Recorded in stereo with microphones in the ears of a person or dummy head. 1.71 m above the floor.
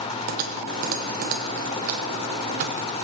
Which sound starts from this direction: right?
Typing on a keyboard, at 0.3 s.